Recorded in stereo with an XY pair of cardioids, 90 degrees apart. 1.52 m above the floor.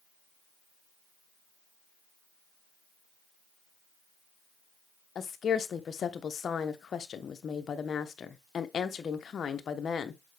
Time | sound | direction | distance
5.2 | a woman speaking | 55° left | 1.1 m